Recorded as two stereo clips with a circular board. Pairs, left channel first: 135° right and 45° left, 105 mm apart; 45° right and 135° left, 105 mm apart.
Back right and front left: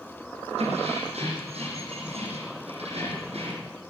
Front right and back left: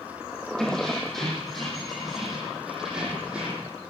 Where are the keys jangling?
40° left, 9 m; by 3.7 s 55° left, 8.5 m.